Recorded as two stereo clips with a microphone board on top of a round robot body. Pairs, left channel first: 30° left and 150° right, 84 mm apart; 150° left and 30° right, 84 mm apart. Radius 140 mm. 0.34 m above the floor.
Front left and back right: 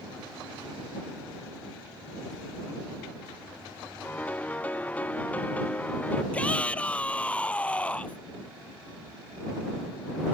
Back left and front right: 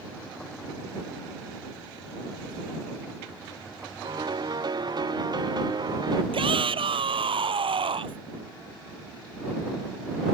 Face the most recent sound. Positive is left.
turn(degrees=-45)